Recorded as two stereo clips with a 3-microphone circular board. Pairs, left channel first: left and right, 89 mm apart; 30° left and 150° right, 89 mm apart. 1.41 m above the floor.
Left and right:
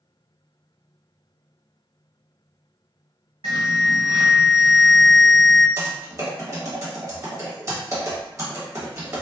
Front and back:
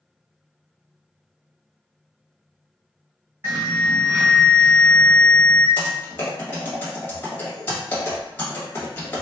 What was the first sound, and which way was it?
An alarm, 85° right.